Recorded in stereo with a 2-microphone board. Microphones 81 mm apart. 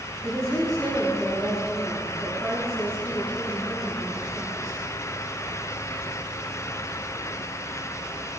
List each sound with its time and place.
0.2 s a woman speaking: 5° left (ahead or behind), 7 m